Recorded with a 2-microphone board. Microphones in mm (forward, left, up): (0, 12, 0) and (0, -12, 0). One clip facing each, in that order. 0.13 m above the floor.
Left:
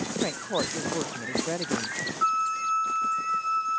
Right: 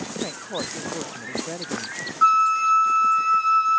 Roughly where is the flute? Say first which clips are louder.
Right 9 dB; right.